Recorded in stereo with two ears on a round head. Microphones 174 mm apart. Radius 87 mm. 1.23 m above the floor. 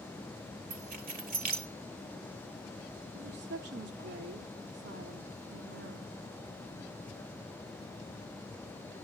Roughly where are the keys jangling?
Right.